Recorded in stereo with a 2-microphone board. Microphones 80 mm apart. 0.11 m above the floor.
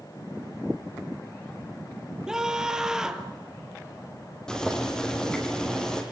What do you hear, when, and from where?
2.3 s a scream: 5° right (ahead or behind), 2.5 m
4.5 s boiling: 10° left (ahead or behind), 4.5 m